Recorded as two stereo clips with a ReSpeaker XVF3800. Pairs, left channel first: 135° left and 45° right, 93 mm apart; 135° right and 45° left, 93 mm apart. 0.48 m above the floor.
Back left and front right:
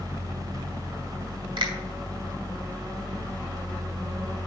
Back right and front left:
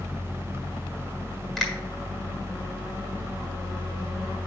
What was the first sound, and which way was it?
A finger snap, 45° right.